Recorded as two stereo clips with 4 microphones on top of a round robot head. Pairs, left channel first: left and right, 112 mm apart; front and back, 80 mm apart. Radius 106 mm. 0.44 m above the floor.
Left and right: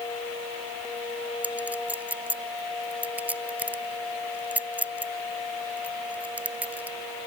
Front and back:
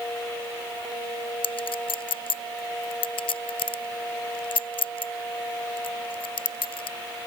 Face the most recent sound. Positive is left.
turn(degrees=-10)